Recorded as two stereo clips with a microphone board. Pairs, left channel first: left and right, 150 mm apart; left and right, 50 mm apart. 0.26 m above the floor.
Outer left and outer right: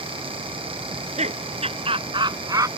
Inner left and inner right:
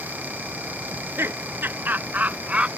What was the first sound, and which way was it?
Laughter, 50° right (ahead or behind).